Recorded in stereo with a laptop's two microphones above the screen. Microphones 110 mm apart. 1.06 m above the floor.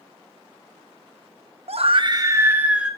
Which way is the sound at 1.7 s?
70° right (ahead or behind).